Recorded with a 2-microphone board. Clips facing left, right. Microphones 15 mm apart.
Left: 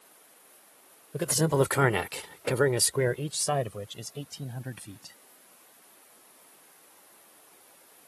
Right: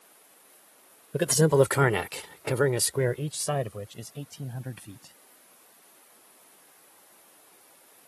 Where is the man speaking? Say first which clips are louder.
Right 4 dB; 35° right (ahead or behind); by 5.2 s 50° left (ahead or behind).